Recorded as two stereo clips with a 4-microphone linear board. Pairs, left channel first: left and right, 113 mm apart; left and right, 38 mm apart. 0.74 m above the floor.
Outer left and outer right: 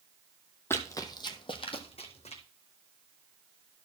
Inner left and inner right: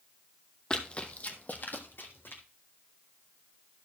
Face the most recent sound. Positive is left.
turn(degrees=65)  # may be behind; listen again after turning